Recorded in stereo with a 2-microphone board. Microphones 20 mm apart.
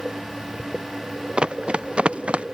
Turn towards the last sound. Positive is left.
turn(degrees=-65)  # may be behind; listen again after turning